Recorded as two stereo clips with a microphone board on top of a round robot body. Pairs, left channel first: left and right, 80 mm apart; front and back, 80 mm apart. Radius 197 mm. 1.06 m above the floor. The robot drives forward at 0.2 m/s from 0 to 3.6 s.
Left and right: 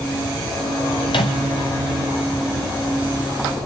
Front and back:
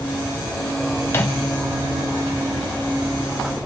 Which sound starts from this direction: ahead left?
A microwave, at 1.1 s.